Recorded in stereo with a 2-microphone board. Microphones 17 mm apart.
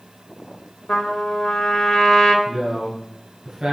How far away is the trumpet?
About 1.0 m.